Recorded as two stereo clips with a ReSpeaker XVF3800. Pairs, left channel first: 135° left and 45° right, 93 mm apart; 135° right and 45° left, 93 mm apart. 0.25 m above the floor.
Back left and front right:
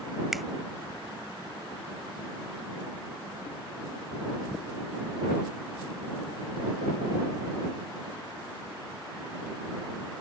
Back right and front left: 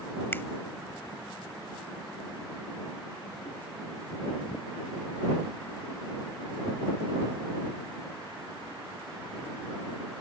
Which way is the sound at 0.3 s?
130° right.